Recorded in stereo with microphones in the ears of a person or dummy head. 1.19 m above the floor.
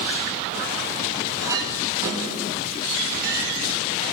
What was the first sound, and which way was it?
A clink, 20° right (ahead or behind).